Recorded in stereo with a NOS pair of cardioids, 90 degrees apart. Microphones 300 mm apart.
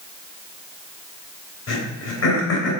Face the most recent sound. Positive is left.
turn(degrees=55)